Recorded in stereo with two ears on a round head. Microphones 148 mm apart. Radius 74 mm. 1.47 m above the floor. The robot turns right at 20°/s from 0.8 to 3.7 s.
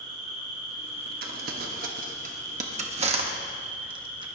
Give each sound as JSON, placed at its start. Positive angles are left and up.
{"t": 0.0, "sound": "an insect", "azimuth_deg": -120, "distance_m": 3.5}
{"t": 1.2, "sound": "crumpling", "side_deg": -60, "distance_m": 1.2}